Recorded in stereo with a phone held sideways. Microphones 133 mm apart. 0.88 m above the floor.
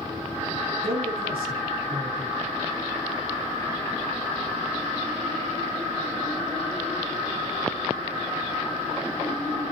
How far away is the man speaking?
About 7.5 m.